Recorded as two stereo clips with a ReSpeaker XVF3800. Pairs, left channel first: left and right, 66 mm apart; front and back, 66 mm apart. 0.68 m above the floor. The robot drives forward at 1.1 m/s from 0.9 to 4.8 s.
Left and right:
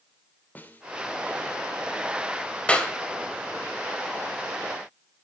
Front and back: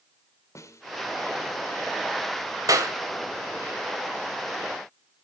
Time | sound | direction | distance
0.6 | a snare drum | 30° left | 2.5 m
2.7 | a clap | 160° left | 2.5 m